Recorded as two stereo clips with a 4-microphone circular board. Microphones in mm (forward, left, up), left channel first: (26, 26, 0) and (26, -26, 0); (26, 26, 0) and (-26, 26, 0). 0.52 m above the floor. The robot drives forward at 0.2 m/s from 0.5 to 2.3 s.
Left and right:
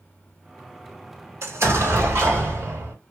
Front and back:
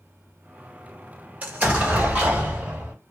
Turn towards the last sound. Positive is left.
turn(degrees=-125)